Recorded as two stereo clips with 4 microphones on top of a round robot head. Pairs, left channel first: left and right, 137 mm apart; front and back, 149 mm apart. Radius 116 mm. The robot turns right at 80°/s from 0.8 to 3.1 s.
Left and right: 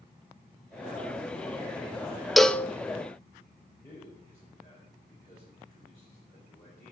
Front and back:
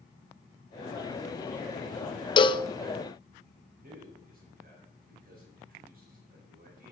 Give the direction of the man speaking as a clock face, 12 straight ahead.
7 o'clock.